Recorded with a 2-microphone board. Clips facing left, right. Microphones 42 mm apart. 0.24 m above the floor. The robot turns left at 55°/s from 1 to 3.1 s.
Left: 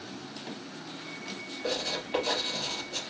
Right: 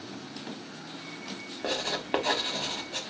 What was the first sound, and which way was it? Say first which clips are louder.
Writing: right 1 dB; 45° right (ahead or behind).